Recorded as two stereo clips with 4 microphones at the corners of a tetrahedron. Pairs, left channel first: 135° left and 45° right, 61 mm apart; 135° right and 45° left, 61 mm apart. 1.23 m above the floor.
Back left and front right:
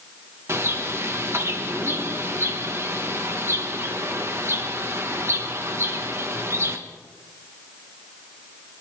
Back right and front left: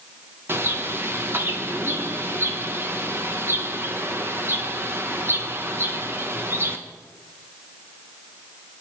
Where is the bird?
Straight ahead, 1.4 m.